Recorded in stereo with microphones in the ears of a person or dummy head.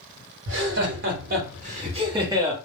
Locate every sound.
0.5 s laughter: 65° right (ahead or behind), 1.4 m; by 2.5 s 15° right (ahead or behind), 1.1 m